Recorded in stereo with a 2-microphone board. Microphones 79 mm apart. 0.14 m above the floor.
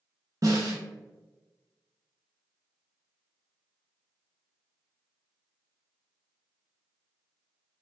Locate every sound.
0.4 s a snare drum: 40° right (ahead or behind), 1.8 m